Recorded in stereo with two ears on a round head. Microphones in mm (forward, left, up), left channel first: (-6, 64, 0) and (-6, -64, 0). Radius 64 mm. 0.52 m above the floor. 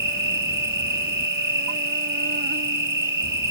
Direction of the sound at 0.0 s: 70° right (ahead or behind).